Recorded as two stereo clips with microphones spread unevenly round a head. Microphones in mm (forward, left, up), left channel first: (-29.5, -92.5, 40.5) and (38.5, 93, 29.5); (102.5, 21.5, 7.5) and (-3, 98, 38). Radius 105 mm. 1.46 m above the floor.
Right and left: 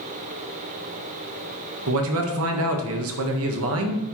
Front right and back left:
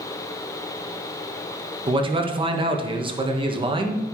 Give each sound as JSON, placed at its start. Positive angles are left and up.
{"t": 1.9, "sound": "a man speaking", "azimuth_deg": 90, "distance_m": 1.7}